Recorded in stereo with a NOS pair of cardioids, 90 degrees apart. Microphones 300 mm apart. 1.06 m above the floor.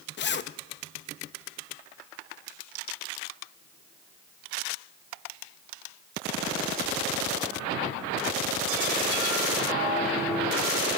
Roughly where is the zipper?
Ahead left.